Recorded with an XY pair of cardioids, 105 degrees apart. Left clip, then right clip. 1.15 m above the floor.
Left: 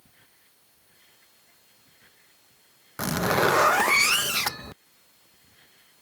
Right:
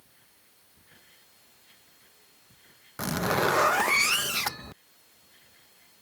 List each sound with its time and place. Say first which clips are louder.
3.0 s a zipper: left 3 dB; 25° left